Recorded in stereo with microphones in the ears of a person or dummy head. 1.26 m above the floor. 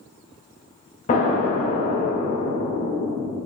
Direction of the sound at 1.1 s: 40° left (ahead or behind).